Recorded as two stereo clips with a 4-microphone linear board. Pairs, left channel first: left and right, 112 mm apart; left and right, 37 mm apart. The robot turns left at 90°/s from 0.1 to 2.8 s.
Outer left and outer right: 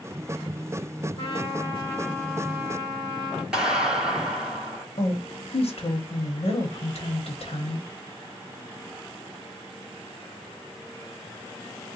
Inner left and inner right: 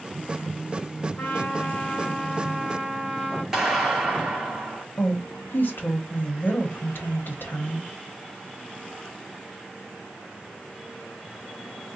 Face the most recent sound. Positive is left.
turn(degrees=65)  # may be behind; listen again after turning